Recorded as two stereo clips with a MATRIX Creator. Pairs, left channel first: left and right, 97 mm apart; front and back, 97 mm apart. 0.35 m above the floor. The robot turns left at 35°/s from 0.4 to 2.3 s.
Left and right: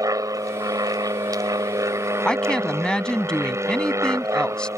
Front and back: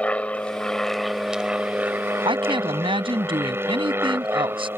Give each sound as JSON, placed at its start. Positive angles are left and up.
{"t": 0.0, "sound": "an aircraft", "azimuth_deg": -70}
{"t": 2.2, "sound": "a woman speaking", "azimuth_deg": 170}